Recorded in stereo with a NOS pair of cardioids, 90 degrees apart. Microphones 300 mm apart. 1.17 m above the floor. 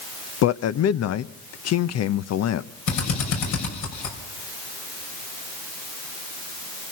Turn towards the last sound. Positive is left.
turn(degrees=70)